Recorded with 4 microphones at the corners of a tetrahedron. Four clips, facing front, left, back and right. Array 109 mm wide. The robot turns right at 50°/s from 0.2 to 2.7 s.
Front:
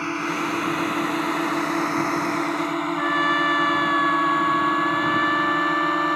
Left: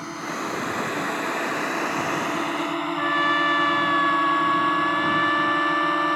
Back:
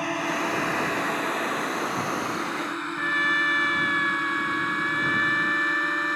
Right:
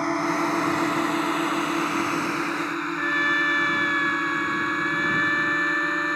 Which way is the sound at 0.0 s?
95° right.